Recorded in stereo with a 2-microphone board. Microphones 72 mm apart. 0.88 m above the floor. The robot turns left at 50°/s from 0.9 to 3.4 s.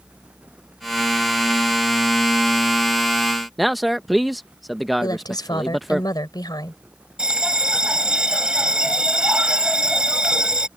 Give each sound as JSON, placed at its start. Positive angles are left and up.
{"t": 3.6, "sound": "a man speaking", "side_deg": 0}
{"t": 5.0, "sound": "a woman speaking", "side_deg": 70}
{"t": 7.2, "sound": "a bell", "side_deg": -15}